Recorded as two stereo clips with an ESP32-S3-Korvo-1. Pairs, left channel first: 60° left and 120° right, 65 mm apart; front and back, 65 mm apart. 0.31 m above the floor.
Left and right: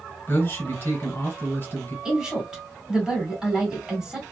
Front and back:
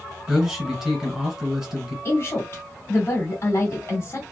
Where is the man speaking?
100° left, 2 m.